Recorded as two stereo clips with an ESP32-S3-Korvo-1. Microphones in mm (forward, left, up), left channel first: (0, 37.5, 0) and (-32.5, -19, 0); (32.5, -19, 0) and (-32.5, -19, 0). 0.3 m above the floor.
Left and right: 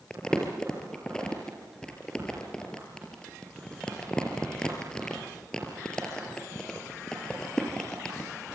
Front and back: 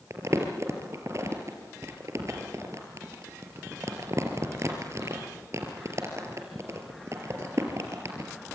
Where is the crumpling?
140° left, 4 m.